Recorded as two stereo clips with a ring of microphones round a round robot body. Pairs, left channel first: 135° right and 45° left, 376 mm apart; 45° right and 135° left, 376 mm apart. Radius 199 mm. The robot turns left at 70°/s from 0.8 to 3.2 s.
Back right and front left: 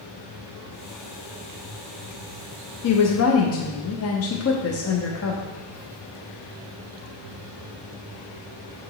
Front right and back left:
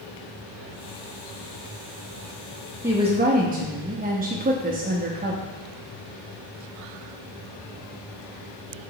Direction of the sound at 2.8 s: 140° right.